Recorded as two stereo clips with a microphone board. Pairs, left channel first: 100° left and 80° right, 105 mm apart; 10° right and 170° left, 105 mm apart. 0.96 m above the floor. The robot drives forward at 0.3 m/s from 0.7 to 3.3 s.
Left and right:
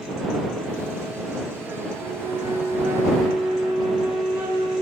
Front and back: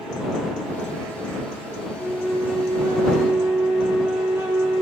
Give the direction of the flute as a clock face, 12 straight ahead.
2 o'clock.